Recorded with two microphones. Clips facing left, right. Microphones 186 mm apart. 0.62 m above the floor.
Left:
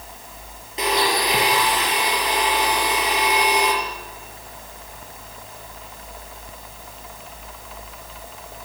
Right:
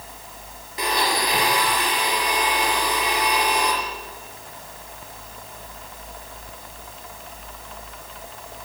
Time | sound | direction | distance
0.8 | a blender | 20° left (ahead or behind) | 7 m